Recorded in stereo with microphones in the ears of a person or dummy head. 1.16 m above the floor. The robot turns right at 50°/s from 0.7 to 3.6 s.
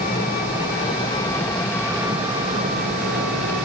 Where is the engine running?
135° left, 4 m; by 3.6 s 80° right, 4 m.